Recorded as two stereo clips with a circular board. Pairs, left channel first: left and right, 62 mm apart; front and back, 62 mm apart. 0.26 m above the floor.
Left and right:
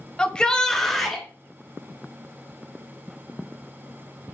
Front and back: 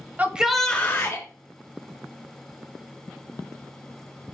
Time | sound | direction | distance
0.2 | a shout | 155° left | 1.0 m